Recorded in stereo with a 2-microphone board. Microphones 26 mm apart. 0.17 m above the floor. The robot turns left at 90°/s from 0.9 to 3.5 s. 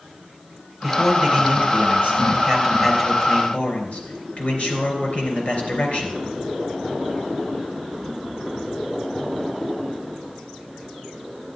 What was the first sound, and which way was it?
A man speaking, 10° left.